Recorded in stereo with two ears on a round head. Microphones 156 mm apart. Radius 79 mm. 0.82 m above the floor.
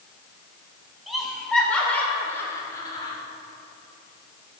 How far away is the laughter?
About 3 m.